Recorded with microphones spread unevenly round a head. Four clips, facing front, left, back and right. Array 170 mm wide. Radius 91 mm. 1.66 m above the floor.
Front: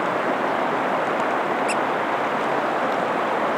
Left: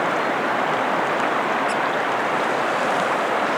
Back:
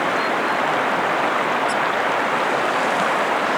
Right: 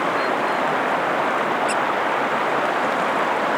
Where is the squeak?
40° right.